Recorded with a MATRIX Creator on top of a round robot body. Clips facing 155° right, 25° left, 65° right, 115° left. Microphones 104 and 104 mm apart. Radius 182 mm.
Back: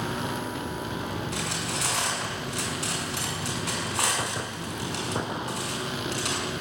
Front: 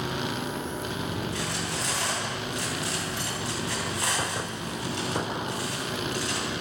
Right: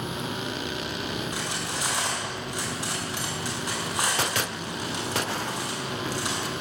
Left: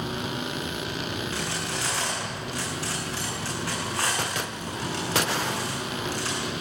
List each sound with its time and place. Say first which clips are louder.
1.3 s cutlery clinking: even, left 1 dB; 140° right, 7 m